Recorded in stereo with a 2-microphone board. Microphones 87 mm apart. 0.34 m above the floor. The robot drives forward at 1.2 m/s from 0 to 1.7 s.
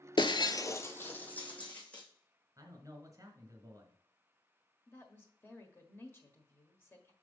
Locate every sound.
0.2 s breaking glass: 65° left (ahead or behind), 0.5 m; by 2.0 s 15° left (ahead or behind), 1.8 m
2.6 s a man speaking: 40° right (ahead or behind), 1.6 m
4.9 s a woman speaking: 25° left (ahead or behind), 1.3 m